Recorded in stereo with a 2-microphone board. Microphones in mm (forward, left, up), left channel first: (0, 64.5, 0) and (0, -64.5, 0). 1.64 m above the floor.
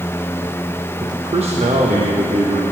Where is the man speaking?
30° right (ahead or behind), 1.2 m; by 2.6 s 80° right, 2.5 m.